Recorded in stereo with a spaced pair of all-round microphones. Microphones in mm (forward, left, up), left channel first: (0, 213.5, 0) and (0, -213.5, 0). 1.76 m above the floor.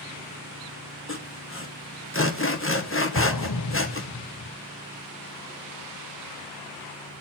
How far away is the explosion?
About 0.9 m.